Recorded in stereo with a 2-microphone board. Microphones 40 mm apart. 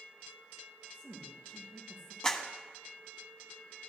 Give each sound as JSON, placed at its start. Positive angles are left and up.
{"t": 0.9, "sound": "a woman speaking", "side_deg": 40, "distance_m": 6.0}
{"t": 2.2, "sound": "a clap", "side_deg": 20, "distance_m": 1.4}